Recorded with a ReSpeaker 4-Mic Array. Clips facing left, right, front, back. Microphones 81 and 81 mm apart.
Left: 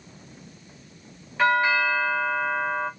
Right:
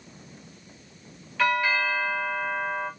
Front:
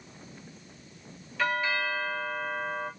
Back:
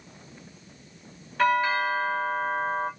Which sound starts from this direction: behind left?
A doorbell, at 1.4 s.